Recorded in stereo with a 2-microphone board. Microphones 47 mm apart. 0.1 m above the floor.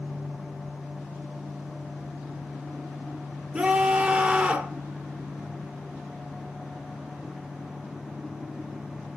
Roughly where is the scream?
Right.